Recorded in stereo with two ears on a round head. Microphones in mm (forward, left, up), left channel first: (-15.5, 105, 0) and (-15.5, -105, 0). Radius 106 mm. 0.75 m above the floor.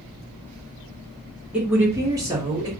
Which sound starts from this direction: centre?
A woman speaking, at 1.5 s.